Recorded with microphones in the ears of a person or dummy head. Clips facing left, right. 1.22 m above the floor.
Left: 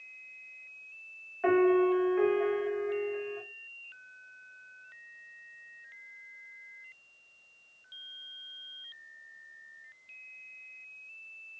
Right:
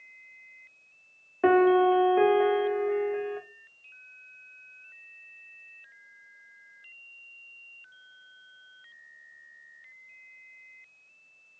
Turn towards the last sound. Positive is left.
turn(degrees=-60)  # may be behind; listen again after turning